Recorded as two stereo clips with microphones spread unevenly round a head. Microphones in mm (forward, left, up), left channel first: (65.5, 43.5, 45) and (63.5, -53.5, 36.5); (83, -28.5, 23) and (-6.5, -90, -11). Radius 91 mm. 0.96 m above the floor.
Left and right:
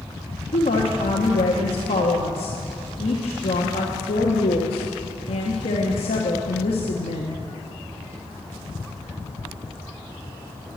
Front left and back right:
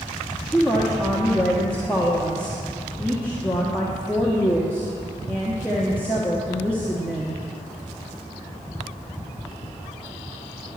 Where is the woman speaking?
120° left, 1.1 m.